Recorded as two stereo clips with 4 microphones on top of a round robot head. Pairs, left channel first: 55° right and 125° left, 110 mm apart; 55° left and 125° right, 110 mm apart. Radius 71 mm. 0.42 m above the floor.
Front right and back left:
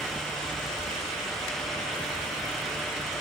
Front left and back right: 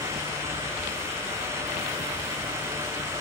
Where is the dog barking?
No dog barking in this recording.